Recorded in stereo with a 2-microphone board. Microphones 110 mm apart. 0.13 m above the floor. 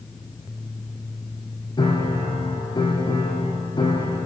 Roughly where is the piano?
Left.